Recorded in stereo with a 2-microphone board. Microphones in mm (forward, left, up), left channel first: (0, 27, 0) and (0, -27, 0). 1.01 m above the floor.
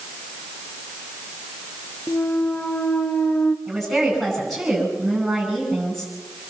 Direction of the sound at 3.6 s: Centre (ahead or behind).